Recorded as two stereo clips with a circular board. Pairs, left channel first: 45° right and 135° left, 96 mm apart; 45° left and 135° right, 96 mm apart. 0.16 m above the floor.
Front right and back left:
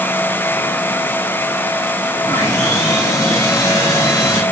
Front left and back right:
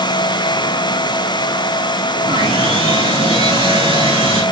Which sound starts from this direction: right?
Sawing, at 2.2 s.